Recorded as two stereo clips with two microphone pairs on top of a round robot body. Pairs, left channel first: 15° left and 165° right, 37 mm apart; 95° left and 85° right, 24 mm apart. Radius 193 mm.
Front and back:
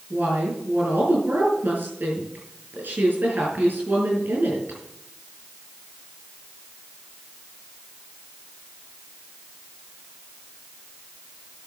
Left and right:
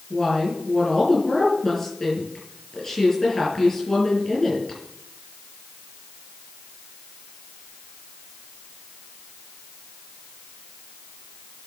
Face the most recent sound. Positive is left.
turn(degrees=165)